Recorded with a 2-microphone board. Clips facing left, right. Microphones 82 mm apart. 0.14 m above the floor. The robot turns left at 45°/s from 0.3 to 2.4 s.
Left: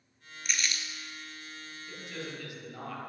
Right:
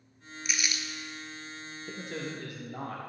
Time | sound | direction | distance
0.5 | crumpling | 5° right (ahead or behind) | 0.9 m
1.9 | a man speaking | 55° right (ahead or behind) | 2.5 m